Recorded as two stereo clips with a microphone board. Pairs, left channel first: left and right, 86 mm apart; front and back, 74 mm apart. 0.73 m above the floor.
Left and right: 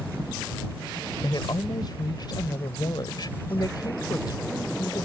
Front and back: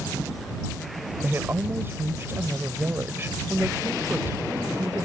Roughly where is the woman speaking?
Behind left.